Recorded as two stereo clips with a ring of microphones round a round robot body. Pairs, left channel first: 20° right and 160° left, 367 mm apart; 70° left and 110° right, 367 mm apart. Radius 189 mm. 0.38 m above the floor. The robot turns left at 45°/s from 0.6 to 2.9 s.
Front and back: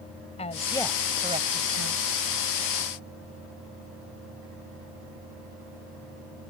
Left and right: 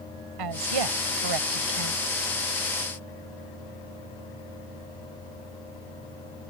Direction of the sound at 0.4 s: 95° right.